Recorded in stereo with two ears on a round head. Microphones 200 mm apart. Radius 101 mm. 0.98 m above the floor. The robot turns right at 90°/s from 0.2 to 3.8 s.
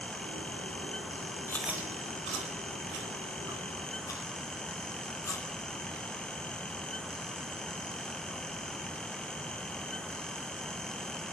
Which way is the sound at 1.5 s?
15° left (ahead or behind).